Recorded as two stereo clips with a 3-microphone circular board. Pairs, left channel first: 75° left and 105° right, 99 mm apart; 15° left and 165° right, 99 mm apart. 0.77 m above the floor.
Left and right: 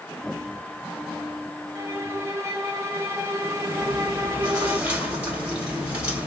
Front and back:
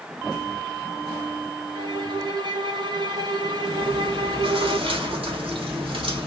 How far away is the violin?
About 1.2 m.